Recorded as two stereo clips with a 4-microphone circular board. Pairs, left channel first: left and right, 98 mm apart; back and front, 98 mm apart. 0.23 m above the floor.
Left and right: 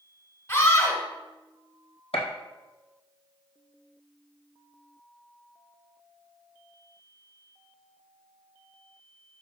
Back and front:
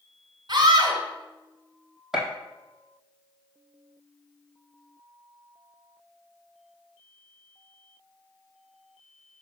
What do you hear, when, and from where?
0.5 s a scream: 35° left, 1.9 m
2.1 s a gunshot: 85° left, 1.4 m